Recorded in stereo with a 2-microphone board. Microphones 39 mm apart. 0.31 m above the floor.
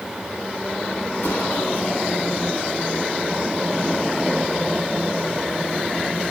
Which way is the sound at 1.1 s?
50° left (ahead or behind).